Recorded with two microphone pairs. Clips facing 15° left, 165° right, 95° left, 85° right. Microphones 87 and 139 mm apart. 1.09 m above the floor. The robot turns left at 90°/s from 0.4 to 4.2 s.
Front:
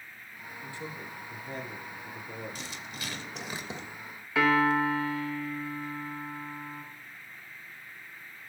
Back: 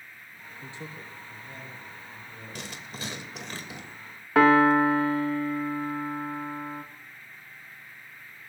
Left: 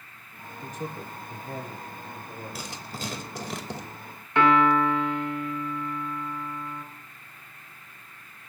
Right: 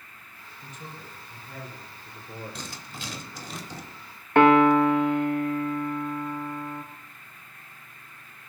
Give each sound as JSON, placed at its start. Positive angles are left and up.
{"t": 0.6, "sound": "a man speaking", "azimuth_deg": 140, "distance_m": 3.5}
{"t": 2.5, "sound": "writing", "azimuth_deg": 180, "distance_m": 2.5}
{"t": 4.3, "sound": "a piano", "azimuth_deg": -120, "distance_m": 1.4}